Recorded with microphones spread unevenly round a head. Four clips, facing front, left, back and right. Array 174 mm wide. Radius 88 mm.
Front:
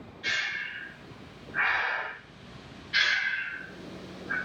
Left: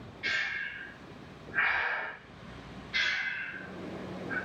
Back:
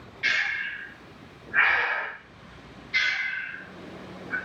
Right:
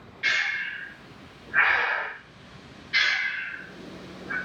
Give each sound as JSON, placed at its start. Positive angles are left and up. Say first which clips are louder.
{"t": 0.2, "sound": "breathing", "louder": "right 6 dB, back 5 dB", "azimuth_deg": -120, "distance_m": 0.6}
{"t": 2.9, "sound": "breathing", "louder": "right 6 dB, front 1 dB", "azimuth_deg": -80, "distance_m": 1.8}